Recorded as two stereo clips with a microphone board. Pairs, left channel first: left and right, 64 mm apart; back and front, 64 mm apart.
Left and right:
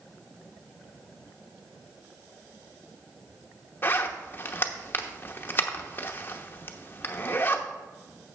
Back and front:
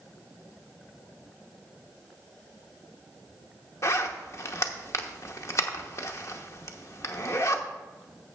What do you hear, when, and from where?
3.8 s a zipper: 145° left, 0.9 m